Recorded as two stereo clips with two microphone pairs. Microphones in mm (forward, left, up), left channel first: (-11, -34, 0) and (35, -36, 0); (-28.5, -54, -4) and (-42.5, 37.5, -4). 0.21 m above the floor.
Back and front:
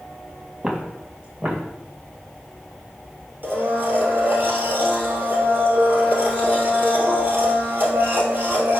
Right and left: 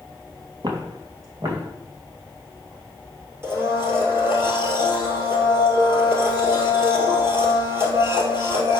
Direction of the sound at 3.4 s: 35° left.